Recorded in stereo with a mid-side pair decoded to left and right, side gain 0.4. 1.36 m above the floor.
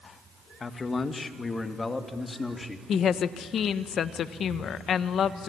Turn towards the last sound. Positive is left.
turn(degrees=65)